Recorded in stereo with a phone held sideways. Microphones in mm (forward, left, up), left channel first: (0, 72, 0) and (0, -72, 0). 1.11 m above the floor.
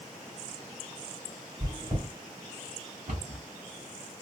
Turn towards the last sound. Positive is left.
turn(degrees=-85)